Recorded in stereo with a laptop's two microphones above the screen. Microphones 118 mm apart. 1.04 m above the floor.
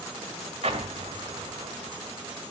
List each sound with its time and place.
0.6 s an explosion: 60° right (ahead or behind), 1.4 m